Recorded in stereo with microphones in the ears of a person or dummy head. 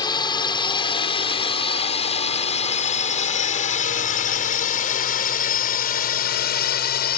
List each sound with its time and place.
0.0 s a drone: 25° left (ahead or behind); by 7.2 s 55° left (ahead or behind)